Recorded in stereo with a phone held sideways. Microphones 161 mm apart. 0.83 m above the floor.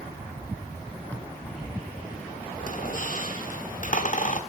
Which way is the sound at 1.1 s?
10° left (ahead or behind).